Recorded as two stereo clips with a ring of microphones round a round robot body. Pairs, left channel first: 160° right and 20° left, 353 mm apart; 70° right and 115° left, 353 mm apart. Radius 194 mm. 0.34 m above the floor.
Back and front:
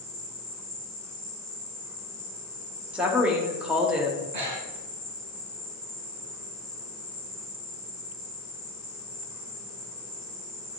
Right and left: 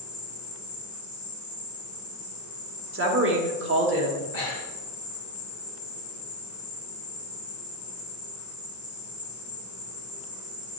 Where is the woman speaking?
105° left, 1.4 m.